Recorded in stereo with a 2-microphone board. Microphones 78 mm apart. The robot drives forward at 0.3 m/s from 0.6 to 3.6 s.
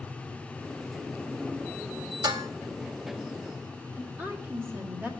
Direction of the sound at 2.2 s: 60° right (ahead or behind).